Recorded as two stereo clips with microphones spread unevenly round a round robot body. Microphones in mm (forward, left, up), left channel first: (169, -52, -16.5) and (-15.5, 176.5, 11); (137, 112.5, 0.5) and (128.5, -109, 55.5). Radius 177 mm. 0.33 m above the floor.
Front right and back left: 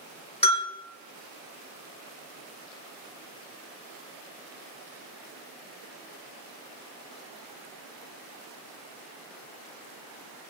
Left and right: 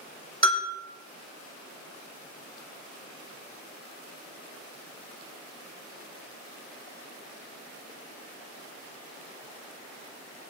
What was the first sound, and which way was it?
A bell, 20° left.